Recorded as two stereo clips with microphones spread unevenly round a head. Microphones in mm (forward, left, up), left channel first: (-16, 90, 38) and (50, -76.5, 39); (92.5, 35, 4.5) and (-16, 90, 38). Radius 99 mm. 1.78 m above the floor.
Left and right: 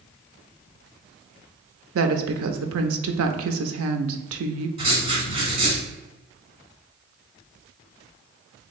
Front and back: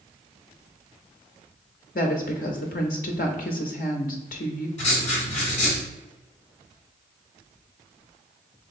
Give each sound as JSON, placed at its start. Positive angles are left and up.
{"t": 1.9, "sound": "a woman speaking", "azimuth_deg": -65, "distance_m": 0.6}
{"t": 4.8, "sound": "writing", "azimuth_deg": -35, "distance_m": 1.4}